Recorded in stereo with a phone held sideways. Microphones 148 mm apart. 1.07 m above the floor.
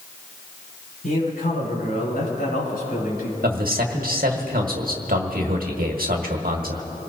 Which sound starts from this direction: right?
A man speaking, at 3.4 s.